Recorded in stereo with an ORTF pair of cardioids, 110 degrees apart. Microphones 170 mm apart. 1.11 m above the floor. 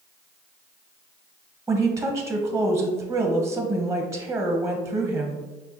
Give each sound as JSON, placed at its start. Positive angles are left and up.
{"t": 1.7, "sound": "a woman speaking", "azimuth_deg": -15, "distance_m": 0.8}